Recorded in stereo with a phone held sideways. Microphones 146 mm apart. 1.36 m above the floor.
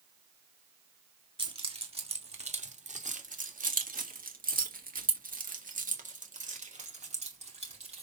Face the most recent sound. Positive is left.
turn(degrees=-45)  # may be behind; listen again after turning